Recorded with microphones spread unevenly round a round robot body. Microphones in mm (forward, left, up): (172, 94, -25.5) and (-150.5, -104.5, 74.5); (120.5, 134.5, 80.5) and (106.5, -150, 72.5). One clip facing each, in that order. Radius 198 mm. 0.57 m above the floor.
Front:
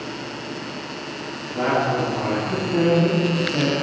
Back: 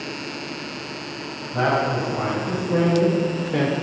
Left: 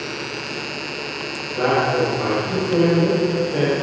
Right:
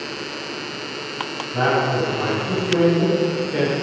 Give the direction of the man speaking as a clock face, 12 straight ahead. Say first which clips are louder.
Front 1 dB, left 2 dB; 4 o'clock.